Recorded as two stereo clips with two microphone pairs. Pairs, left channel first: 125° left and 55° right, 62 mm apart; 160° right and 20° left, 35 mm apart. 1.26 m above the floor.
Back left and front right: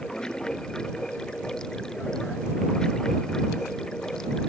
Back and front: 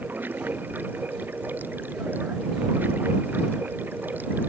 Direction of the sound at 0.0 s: 45° left.